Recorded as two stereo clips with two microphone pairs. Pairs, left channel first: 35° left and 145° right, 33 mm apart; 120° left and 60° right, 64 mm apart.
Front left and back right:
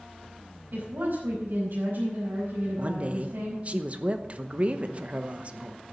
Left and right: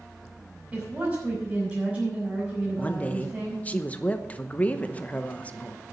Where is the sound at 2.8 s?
Straight behind, 0.9 m.